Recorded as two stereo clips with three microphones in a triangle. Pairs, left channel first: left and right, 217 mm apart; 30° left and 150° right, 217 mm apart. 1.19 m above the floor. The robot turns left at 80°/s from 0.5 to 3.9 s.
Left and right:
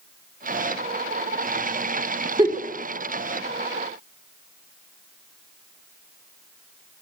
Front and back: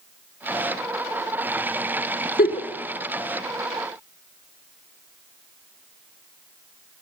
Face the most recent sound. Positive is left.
turn(degrees=-140)